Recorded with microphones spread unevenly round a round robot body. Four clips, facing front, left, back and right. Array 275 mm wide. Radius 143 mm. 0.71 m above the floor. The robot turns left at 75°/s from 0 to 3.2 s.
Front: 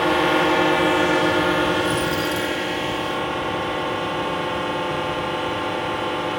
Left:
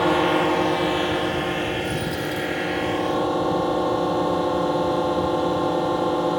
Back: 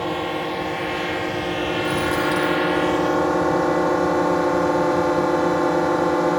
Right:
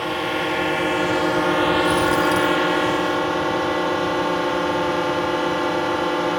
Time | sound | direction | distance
0.0 | a drone | 60° left | ?
1.8 | a dropped coin | 65° right | ?